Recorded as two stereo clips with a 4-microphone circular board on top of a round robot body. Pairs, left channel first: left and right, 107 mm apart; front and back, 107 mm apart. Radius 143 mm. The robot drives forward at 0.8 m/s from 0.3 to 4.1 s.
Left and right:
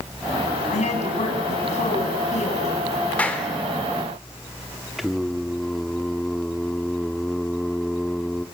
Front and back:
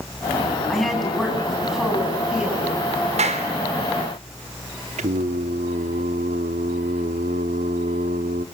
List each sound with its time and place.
0.7 s a woman speaking: 85° left, 7.5 m; by 2.9 s 100° left, 7.5 m
3.2 s a clap: 170° left, 3.5 m
5.0 s singing: straight behind, 0.7 m